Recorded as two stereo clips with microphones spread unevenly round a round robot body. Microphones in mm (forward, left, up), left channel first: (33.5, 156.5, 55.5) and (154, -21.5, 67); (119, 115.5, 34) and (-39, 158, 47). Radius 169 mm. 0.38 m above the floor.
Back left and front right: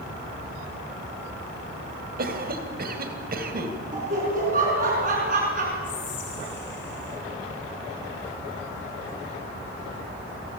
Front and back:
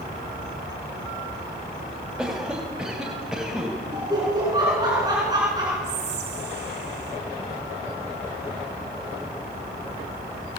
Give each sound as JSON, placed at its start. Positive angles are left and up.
{"t": 2.2, "sound": "a cough", "azimuth_deg": -105, "distance_m": 2.5}
{"t": 3.9, "sound": "laughter", "azimuth_deg": -120, "distance_m": 6.0}
{"t": 5.8, "sound": "whispering", "azimuth_deg": 165, "distance_m": 5.5}